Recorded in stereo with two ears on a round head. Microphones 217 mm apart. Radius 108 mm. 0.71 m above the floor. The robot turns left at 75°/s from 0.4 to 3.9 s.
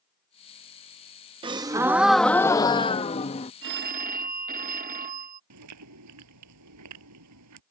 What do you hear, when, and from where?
1.4 s a gasp: 20° right (ahead or behind); by 3.5 s 25° left (ahead or behind)
3.6 s a phone ringing: 55° right (ahead or behind); by 5.4 s 35° right (ahead or behind)
5.5 s chewing: 80° right